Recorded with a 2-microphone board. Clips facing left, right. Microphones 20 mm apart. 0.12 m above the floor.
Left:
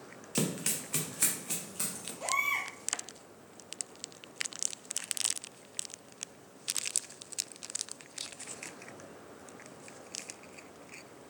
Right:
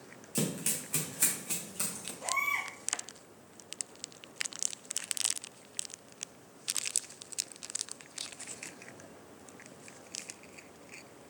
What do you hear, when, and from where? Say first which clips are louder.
0.3 s running footsteps: left 1 dB; 35° left (ahead or behind), 1.4 m; by 2.1 s 5° left (ahead or behind), 3 m
2.2 s a baby crying: left 1 dB; 55° left (ahead or behind), 2 m